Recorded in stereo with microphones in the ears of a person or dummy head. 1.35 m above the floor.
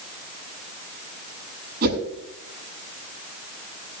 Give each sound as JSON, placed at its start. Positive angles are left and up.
{"t": 1.8, "sound": "a whoosh", "side_deg": -60, "distance_m": 7.0}